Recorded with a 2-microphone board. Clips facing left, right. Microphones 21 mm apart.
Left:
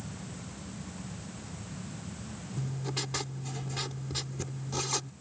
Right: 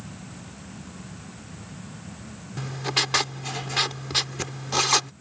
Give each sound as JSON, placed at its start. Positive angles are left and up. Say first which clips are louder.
{"t": 2.6, "sound": "writing", "louder": "right 11 dB", "side_deg": -65}